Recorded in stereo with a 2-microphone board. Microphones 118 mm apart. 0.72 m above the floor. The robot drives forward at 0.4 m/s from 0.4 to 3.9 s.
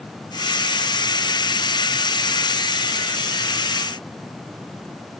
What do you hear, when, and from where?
Only background noise.